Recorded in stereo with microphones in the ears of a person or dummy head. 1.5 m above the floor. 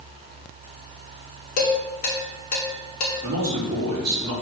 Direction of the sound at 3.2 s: 65° right (ahead or behind).